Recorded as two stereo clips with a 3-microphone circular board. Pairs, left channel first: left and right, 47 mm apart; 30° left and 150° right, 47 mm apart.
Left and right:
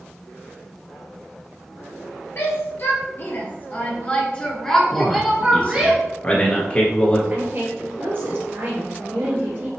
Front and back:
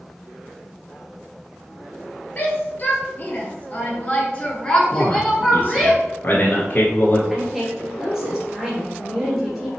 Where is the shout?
75° left, 1.9 m; by 5.9 s 75° right, 1.1 m.